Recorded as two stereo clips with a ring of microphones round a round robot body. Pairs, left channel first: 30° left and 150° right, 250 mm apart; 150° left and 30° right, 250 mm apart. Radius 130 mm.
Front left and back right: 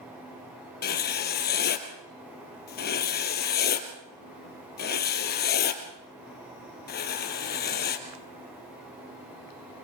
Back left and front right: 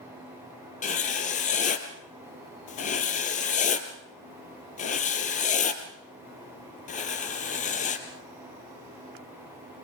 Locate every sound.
0.8 s writing: 85° left, 1.9 m